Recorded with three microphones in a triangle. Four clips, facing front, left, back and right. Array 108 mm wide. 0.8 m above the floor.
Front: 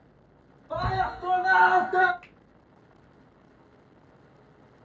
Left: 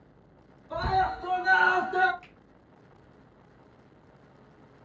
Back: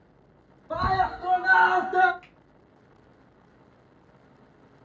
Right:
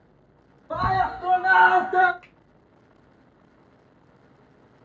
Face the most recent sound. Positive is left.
turn(degrees=-60)